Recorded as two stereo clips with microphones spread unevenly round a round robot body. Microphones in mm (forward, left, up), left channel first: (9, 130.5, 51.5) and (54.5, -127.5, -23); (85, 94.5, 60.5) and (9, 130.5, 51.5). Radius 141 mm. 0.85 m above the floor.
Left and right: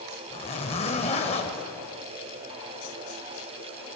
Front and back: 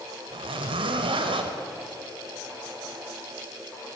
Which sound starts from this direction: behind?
A zipper, at 0.3 s.